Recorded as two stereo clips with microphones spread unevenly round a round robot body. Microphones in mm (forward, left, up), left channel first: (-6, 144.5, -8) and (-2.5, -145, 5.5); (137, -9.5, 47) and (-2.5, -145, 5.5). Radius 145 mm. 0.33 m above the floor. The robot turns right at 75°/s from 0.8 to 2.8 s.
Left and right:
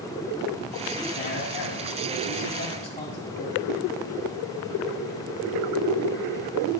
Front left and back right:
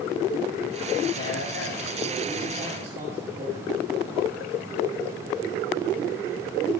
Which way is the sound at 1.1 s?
35° left.